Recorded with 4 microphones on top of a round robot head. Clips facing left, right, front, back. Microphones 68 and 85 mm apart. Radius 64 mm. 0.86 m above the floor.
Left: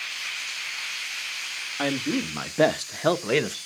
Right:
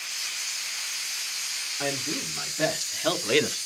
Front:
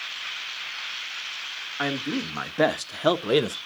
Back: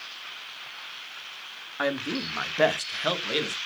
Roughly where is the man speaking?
Left.